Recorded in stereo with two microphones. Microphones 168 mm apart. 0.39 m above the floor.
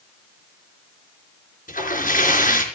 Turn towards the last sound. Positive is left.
turn(degrees=60)  # may be behind; listen again after turning